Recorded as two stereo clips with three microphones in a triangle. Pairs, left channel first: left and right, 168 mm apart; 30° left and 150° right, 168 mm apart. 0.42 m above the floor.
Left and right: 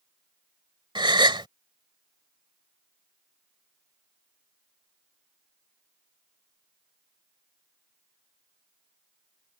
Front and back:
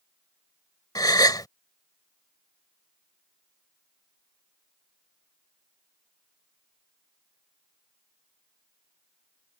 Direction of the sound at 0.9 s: 35° right.